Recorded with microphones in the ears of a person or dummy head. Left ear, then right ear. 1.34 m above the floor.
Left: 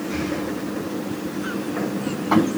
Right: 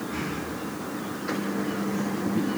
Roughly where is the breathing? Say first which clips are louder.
Left 7 dB; left.